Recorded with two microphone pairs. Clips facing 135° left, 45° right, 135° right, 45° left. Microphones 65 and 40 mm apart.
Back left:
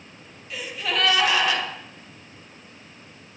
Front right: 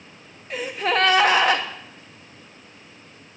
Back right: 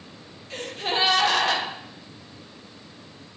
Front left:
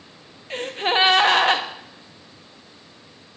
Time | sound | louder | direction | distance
0.5 | a gasp | front right 5 dB, front left 6 dB | 5° right | 1.2 m